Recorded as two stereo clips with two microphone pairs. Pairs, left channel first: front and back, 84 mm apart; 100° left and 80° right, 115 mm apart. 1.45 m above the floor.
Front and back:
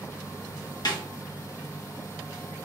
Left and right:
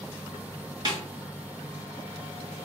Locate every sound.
0.8 s a snare drum: 30° right, 1.1 m